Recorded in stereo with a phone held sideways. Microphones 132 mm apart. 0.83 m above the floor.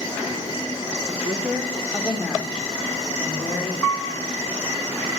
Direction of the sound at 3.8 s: 25° left (ahead or behind).